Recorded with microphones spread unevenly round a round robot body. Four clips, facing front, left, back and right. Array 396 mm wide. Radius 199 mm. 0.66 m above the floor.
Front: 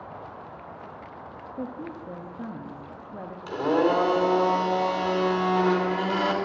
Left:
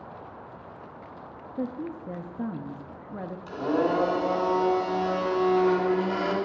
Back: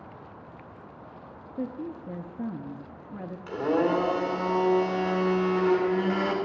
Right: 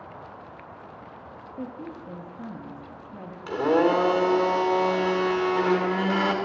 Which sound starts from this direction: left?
A woman speaking, at 1.6 s.